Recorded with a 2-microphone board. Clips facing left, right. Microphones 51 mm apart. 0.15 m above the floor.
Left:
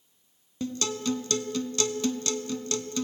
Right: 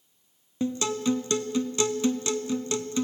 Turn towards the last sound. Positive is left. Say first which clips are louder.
# right 4 dB
turn(degrees=-20)  # may be behind; listen again after turning